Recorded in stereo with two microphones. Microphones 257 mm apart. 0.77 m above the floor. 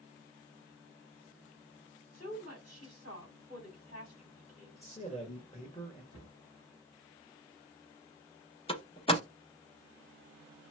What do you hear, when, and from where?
2.1 s a woman speaking: 70° left (ahead or behind), 1.9 m
4.8 s a man speaking: 25° left (ahead or behind), 1.1 m
6.1 s a cupboard door: 75° left (ahead or behind), 1.0 m
8.7 s a door slam: 20° left (ahead or behind), 0.6 m